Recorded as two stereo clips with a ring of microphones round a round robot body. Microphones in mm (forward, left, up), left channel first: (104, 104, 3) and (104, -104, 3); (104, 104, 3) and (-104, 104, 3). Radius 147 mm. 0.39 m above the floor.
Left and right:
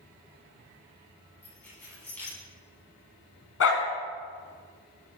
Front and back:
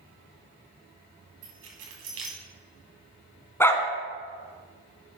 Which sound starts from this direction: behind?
Keys jangling, at 1.4 s.